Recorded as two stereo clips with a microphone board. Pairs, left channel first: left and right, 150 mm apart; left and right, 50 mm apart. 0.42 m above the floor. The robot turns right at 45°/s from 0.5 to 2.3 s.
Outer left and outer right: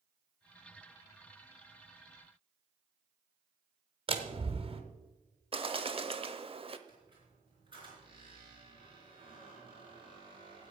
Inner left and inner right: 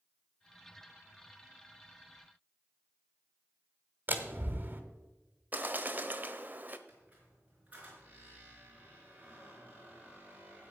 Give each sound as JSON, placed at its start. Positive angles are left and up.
{"t": 4.1, "sound": "a door slam", "side_deg": -40, "distance_m": 1.4}
{"t": 5.5, "sound": "a bird", "side_deg": -40, "distance_m": 0.8}
{"t": 6.9, "sound": "a squeak", "side_deg": -35, "distance_m": 4.0}